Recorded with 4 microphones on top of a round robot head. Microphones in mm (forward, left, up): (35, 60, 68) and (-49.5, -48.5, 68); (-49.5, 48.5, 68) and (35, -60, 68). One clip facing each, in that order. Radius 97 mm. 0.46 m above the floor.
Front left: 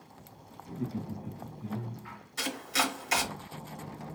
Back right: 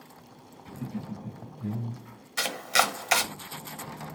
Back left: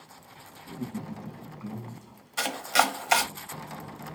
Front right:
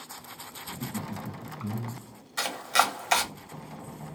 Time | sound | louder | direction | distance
0.7 | laughter | front left 1 dB, even | 105° right | 3 m
2.4 | chopping | back right 5 dB, back left 1 dB | 145° right | 1.0 m